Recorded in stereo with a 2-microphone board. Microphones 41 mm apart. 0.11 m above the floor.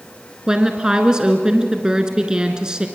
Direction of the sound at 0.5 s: 20° right (ahead or behind).